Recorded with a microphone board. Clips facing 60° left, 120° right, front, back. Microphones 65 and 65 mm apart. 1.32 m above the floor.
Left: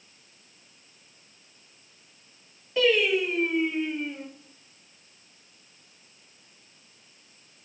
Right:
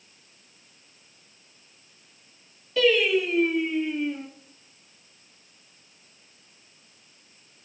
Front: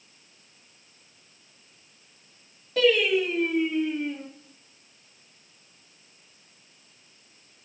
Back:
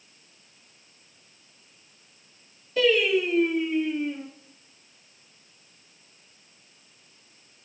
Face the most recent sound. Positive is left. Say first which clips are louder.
# right 1 dB, even
turn(degrees=-10)